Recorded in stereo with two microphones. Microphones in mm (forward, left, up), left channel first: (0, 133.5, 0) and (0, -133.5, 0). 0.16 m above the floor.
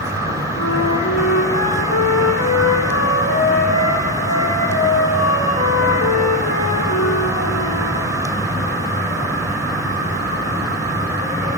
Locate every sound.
0.6 s a flute: 80° left, 5 m